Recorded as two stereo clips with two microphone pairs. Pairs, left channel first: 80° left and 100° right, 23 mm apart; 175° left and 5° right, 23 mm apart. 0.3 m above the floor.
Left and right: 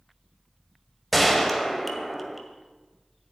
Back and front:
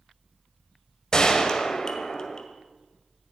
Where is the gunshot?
165° left, 1.7 m.